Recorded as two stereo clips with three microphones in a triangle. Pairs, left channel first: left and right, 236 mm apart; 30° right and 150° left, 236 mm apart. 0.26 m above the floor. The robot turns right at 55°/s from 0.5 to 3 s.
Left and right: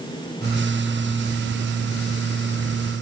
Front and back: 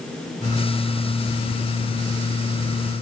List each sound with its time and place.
Only background noise.